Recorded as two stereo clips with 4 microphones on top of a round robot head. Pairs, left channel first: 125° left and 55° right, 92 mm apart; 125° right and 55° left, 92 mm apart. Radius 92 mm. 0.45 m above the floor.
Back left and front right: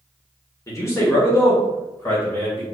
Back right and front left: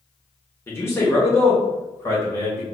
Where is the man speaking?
175° left, 1.7 m; by 2.6 s 175° right, 2.5 m.